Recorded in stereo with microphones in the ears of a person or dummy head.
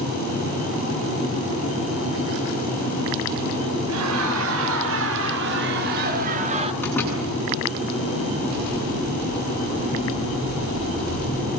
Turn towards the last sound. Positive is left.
turn(degrees=10)  # may be behind; listen again after turning